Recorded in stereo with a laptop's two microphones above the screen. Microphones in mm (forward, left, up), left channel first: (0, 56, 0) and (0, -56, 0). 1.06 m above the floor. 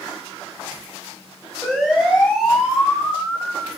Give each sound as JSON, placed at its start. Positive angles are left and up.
{"t": 1.6, "sound": "a siren", "side_deg": 0, "distance_m": 8.5}